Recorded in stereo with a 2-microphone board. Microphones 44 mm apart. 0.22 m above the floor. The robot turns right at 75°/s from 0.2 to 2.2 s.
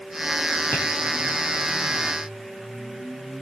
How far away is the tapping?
About 5 m.